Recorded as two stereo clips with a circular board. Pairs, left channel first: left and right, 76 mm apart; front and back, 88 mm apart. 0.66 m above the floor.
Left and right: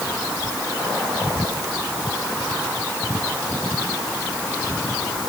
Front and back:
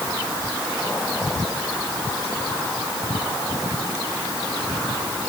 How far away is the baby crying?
No baby crying in this recording.